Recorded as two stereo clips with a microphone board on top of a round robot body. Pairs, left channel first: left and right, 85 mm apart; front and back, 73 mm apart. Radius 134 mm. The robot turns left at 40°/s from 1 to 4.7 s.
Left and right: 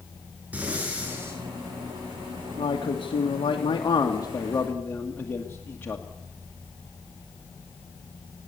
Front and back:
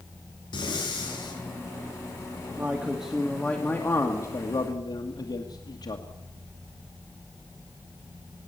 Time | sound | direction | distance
0.5 | breathing | 15° right | 4 m
2.6 | a man speaking | 105° left | 2 m